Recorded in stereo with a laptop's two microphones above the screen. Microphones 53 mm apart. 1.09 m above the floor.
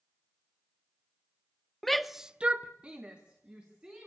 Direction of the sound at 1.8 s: 5° left (ahead or behind).